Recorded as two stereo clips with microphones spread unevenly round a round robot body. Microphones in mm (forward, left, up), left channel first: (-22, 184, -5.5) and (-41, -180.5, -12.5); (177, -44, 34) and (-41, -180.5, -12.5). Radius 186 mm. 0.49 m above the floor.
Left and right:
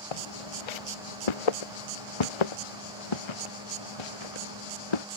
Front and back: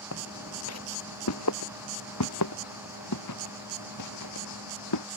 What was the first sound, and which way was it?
Footsteps, 85° left.